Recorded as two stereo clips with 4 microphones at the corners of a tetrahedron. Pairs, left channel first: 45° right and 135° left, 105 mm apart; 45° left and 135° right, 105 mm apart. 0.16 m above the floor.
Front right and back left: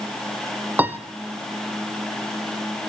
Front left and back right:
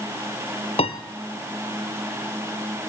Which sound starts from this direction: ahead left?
A piano, at 0.8 s.